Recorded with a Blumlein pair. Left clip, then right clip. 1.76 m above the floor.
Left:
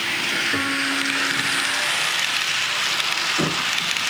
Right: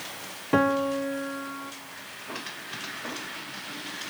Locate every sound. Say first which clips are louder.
0.5 s a piano: left 2 dB; 25° right, 1.3 m